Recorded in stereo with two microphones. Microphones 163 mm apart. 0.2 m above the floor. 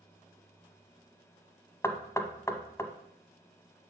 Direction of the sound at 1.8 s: 20° left (ahead or behind).